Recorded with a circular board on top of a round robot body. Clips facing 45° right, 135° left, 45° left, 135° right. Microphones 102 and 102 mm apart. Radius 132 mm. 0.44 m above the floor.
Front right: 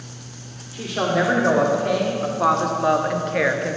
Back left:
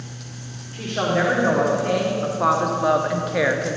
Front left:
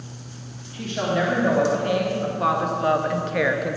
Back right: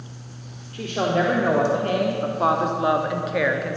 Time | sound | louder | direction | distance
0.7 | a woman speaking | front right 1 dB, back right 2 dB | 125° right | 2 m